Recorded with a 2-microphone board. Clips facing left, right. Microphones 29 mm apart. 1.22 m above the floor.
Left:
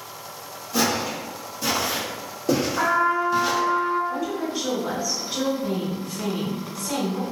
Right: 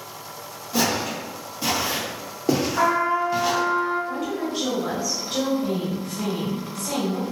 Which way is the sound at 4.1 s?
75° right (ahead or behind).